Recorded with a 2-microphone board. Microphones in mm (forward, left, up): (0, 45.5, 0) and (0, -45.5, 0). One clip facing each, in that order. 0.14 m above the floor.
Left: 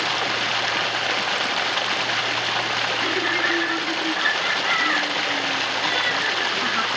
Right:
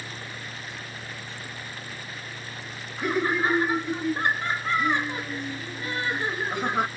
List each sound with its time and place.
0.0 s running water: 80° left
3.0 s laughter: 15° right (ahead or behind)